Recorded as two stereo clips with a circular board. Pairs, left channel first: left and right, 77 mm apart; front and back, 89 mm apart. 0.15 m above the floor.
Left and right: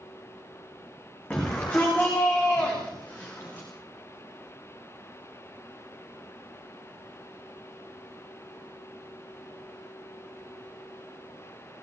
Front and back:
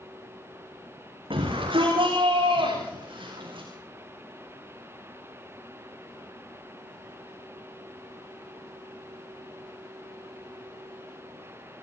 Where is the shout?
165° left, 9.5 m; by 3.7 s 160° left, 7.5 m.